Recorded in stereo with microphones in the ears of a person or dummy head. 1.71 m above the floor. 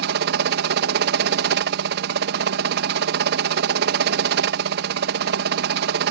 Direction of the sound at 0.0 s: 65° right (ahead or behind).